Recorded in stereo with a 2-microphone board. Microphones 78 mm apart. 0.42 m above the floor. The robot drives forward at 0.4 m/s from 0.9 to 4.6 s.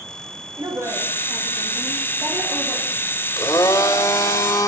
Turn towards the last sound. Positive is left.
turn(degrees=40)  # may be behind; listen again after turning